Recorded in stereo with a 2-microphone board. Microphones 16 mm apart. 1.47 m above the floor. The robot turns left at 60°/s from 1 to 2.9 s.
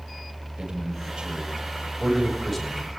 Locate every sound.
0.6 s a man speaking: 80° right, 9 m; by 2.9 s 30° left (ahead or behind), 9 m